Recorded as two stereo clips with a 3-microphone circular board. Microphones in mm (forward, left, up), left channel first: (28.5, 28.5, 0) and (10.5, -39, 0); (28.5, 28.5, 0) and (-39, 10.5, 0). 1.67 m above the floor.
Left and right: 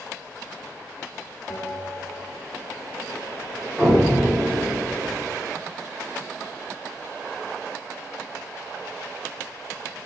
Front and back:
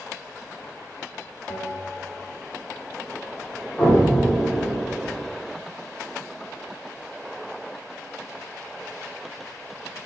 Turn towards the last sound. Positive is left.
turn(degrees=-30)